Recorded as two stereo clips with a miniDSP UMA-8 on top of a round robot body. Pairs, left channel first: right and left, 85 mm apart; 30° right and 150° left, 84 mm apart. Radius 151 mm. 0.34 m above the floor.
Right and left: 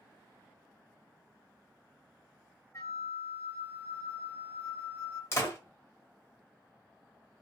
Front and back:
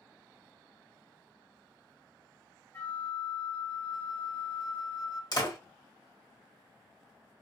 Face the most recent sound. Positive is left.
turn(degrees=-40)